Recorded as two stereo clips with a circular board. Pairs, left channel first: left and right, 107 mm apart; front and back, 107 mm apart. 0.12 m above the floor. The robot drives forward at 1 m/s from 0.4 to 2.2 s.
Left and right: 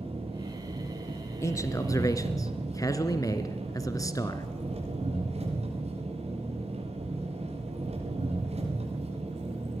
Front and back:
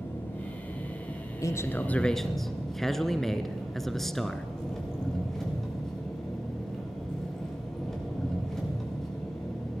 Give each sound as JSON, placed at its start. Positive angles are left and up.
{"t": 0.0, "sound": "an engine running", "azimuth_deg": -70, "distance_m": 7.0}
{"t": 1.4, "sound": "a man speaking", "azimuth_deg": 45, "distance_m": 1.7}